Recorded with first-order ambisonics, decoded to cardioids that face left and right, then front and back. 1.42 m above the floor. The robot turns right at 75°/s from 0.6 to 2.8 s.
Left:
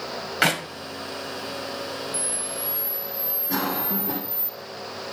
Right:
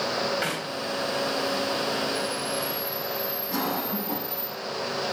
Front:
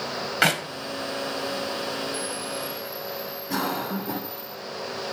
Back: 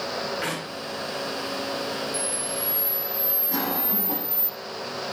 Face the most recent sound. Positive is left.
turn(degrees=50)